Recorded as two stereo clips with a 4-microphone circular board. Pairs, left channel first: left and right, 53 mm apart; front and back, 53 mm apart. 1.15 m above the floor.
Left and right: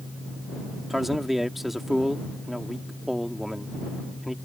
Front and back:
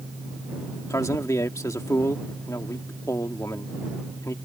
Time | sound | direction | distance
0.9 | a man speaking | 5° right | ?